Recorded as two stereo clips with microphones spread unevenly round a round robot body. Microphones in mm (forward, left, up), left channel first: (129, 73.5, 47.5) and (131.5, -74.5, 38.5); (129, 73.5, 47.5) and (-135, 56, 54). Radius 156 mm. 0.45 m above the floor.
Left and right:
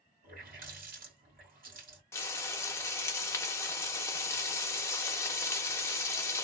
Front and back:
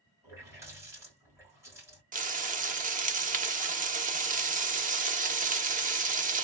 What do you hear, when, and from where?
0.2 s a running tap: 95° right, 1.6 m
2.1 s frying: 155° left, 0.7 m